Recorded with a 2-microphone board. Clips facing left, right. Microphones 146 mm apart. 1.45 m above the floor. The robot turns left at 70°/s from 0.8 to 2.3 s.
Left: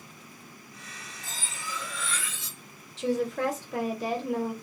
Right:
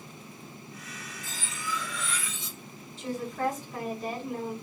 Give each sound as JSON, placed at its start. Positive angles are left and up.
{"t": 1.2, "sound": "cutlery clinking", "azimuth_deg": 55, "distance_m": 1.8}
{"t": 3.0, "sound": "a woman speaking", "side_deg": 90, "distance_m": 1.2}